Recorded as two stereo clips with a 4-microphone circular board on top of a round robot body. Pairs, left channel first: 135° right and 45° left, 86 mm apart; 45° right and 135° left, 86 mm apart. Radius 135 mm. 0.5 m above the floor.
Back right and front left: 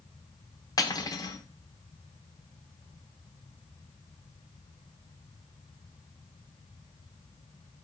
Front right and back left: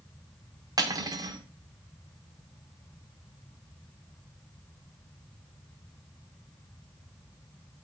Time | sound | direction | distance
0.8 | cutlery clinking | straight behind | 1.1 m